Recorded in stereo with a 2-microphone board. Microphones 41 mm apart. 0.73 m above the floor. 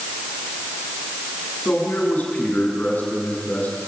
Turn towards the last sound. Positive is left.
turn(degrees=40)  # may be behind; listen again after turning